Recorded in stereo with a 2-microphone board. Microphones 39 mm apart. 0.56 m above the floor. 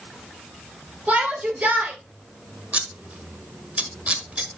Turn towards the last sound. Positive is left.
turn(degrees=-35)  # may be behind; listen again after turning